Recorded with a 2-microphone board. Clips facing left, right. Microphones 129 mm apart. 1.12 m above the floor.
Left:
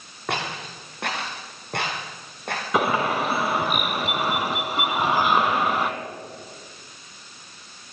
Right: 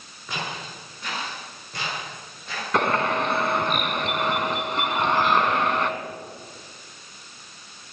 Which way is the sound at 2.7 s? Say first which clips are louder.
Even; 5° left (ahead or behind).